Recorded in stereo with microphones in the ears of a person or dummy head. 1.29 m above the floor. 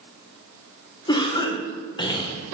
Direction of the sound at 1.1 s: 20° left (ahead or behind).